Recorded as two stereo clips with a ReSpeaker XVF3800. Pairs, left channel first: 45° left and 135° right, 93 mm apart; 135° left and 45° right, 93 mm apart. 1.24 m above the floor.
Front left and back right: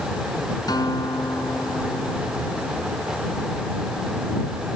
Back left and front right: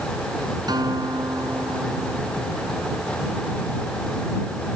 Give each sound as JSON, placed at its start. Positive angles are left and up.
{"t": 0.7, "sound": "a guitar", "azimuth_deg": 0}